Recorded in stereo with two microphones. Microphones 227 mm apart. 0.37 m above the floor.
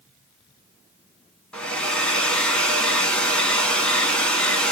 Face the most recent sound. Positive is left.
turn(degrees=5)  # may be behind; listen again after turning